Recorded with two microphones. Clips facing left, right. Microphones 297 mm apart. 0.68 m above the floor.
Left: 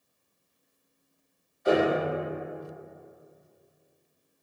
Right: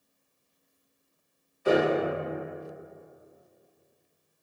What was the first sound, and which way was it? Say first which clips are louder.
A piano: even; 35° right (ahead or behind).